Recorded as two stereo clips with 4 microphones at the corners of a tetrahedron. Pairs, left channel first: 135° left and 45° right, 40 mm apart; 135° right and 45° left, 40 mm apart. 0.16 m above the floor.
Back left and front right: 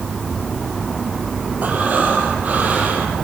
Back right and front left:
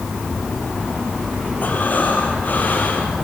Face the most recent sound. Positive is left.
turn(degrees=-90)